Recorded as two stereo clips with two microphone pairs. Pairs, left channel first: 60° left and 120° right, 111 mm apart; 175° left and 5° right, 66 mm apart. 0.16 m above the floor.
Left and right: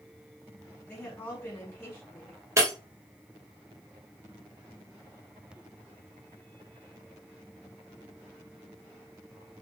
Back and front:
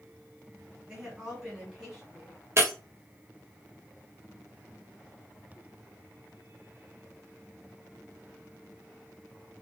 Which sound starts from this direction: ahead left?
A woman speaking, at 0.9 s.